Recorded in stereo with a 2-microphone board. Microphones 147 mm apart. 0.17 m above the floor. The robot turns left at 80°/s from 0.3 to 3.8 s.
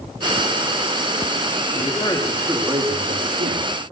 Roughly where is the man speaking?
Ahead left.